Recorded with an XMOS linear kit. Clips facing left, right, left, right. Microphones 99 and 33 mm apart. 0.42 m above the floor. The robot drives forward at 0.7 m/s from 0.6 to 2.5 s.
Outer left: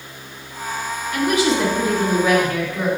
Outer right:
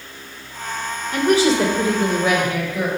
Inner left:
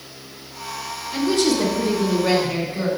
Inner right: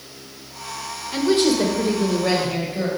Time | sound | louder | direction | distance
1.1 | a woman speaking | outer right 2 dB, inner right 1 dB | 40° right (ahead or behind) | 0.9 m